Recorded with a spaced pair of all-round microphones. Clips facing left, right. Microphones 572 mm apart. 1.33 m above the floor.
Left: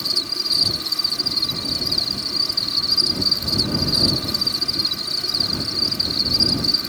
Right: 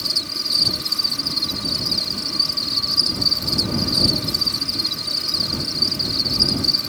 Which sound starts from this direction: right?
An insect, at 0.0 s.